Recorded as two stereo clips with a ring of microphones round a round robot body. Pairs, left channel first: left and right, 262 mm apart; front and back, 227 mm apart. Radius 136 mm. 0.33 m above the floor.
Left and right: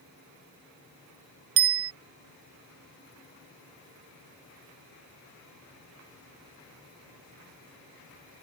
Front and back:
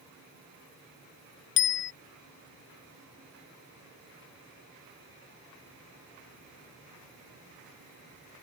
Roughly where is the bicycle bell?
Ahead right.